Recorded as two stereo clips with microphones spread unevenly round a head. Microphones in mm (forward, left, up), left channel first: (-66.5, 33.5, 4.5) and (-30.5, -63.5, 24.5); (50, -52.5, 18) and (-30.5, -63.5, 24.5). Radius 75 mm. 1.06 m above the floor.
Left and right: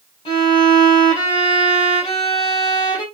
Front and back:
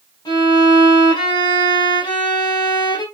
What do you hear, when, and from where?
0.2 s a violin: 60° left, 4 m